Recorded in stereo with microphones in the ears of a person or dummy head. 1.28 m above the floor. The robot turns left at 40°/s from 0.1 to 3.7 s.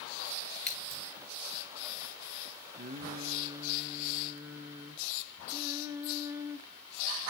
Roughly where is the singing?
Behind right.